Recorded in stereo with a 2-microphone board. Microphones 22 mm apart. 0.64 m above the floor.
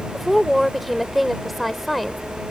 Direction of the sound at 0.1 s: Centre (ahead or behind).